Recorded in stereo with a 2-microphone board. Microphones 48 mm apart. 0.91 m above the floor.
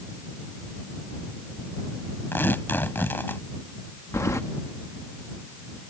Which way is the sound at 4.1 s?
85° left.